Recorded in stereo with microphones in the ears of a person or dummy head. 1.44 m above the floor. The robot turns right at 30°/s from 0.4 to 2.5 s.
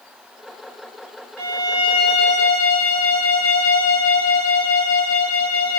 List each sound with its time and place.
1.4 s a violin: 10° right, 1.7 m; by 5.8 s 25° left, 1.7 m